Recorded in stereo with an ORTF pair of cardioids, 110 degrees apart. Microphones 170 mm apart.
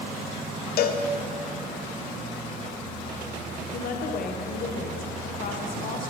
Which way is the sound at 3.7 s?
55° left.